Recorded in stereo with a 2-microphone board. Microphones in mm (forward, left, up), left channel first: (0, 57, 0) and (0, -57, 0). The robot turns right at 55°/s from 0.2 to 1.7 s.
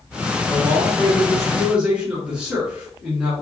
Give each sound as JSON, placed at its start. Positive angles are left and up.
{"t": 0.5, "sound": "a man speaking", "azimuth_deg": 130, "distance_m": 1.5}